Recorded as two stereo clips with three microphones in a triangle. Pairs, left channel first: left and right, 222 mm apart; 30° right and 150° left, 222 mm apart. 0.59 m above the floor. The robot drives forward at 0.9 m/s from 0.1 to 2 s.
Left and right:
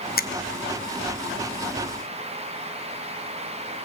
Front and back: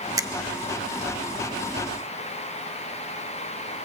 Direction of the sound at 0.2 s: 80° left.